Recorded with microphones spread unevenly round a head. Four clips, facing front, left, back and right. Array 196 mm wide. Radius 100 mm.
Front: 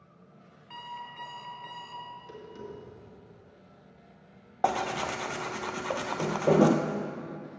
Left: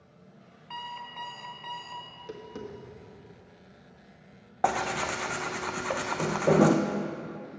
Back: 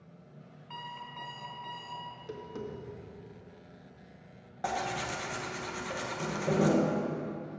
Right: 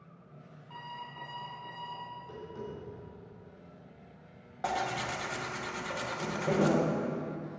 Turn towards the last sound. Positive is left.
turn(degrees=40)